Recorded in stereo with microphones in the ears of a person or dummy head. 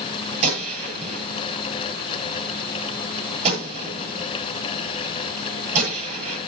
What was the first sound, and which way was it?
A gunshot, 40° right (ahead or behind).